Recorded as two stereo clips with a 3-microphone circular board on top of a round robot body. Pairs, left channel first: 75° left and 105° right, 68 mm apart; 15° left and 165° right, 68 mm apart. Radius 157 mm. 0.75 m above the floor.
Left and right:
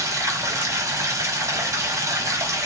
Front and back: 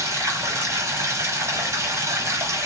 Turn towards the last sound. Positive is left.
turn(degrees=-130)